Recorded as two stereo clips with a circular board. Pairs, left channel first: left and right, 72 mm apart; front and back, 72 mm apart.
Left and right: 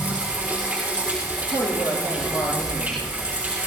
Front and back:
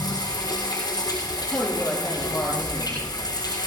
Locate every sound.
0.0 s running water: 20° right, 4 m
1.4 s a man speaking: 70° left, 9 m